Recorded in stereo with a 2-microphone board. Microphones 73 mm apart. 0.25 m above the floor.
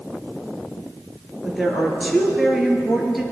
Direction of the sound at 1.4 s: 5° right (ahead or behind).